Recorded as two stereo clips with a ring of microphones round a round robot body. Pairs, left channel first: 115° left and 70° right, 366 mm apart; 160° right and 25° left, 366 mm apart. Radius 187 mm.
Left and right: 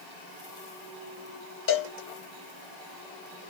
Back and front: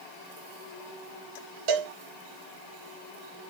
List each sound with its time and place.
1.7 s a cowbell: 55° left, 1.6 m